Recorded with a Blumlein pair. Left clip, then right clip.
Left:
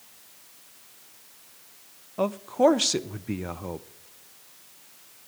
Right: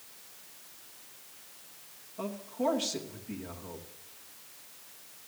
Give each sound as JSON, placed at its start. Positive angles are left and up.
{"t": 2.2, "sound": "a man speaking", "azimuth_deg": 55, "distance_m": 0.7}